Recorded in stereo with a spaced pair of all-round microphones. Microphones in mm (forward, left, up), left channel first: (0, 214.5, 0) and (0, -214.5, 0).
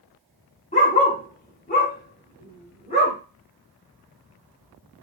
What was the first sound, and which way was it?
A dog barking, 15° left (ahead or behind).